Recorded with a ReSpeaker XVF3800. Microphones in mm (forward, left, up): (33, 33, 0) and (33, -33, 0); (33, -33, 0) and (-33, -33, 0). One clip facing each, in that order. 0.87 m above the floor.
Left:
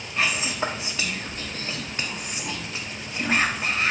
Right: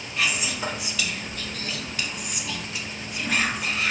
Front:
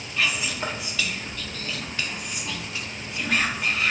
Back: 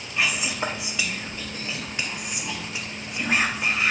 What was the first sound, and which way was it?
Whispering, 120° left.